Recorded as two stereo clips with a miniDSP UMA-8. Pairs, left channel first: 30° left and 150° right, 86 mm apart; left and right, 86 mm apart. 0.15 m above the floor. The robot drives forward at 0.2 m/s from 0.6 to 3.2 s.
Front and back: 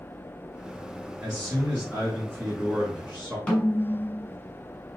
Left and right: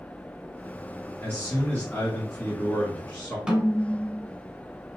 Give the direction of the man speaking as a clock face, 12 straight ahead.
8 o'clock.